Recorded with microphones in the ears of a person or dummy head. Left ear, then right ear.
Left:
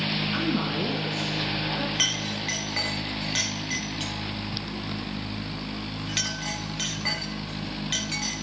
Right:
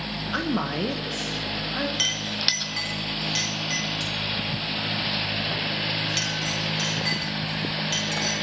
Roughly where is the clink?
Centre.